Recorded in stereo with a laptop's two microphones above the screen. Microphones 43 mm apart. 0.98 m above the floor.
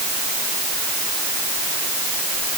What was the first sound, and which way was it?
Only background noise.